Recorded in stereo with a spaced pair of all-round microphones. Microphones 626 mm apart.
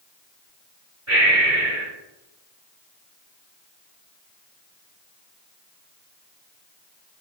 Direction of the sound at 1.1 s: 25° right (ahead or behind).